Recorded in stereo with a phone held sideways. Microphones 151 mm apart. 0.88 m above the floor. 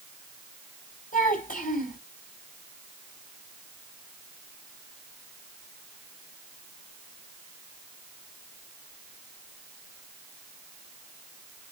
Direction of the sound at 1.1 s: 60° left (ahead or behind).